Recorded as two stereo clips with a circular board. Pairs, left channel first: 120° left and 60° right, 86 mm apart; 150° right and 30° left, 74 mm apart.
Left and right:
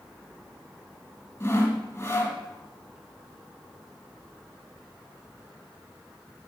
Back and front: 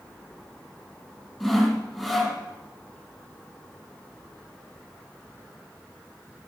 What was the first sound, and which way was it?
Sawing, 135° left.